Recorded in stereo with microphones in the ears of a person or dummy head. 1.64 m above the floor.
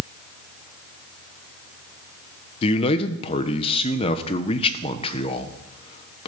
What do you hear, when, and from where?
2.6 s a man speaking: 25° left (ahead or behind), 1.0 m